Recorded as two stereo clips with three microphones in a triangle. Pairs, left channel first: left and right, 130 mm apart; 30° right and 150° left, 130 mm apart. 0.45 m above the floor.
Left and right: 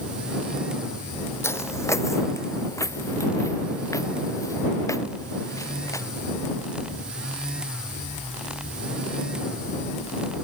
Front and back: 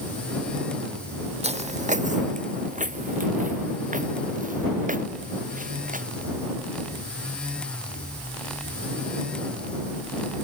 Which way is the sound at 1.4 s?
155° left.